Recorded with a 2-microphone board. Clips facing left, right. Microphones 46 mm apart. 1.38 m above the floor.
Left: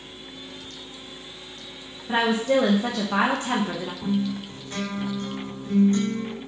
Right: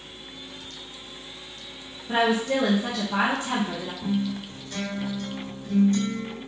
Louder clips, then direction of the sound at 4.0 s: Left 1 dB; 35° left (ahead or behind).